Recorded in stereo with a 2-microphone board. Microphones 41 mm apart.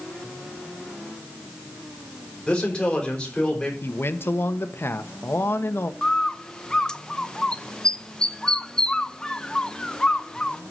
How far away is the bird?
About 0.6 m.